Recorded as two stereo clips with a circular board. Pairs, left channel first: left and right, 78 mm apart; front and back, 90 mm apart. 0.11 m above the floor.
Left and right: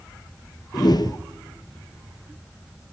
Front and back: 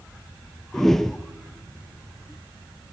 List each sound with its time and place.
0.7 s a whoosh: 85° left, 0.7 m